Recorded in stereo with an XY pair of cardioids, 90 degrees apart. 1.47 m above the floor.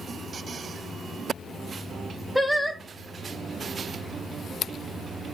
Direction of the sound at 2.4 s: 5° right.